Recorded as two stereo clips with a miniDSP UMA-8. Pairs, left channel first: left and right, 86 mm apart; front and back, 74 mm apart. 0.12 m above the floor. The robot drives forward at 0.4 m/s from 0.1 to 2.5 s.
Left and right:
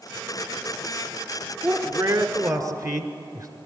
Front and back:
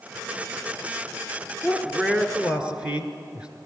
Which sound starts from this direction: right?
A man speaking, at 1.6 s.